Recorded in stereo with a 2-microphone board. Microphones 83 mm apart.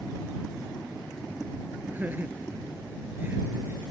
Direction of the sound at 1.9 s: 20° right (ahead or behind).